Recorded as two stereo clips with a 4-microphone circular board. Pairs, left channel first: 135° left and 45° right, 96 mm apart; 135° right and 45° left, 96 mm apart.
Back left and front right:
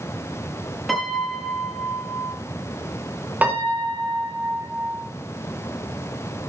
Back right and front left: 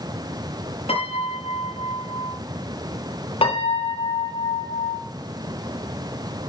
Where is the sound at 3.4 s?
120° right, 4.5 m.